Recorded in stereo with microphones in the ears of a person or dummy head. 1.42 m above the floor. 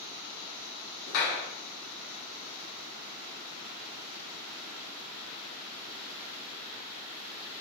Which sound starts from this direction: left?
A clap, at 1.1 s.